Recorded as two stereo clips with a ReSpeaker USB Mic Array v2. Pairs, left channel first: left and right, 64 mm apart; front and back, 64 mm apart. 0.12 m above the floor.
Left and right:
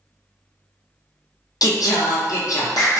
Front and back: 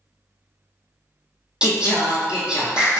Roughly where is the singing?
Left.